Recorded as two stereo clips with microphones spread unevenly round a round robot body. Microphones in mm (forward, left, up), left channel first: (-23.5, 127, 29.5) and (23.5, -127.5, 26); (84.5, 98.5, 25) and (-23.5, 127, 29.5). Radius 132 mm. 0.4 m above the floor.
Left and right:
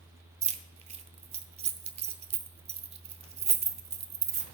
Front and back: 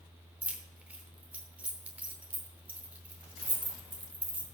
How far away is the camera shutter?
No camera shutter in this recording.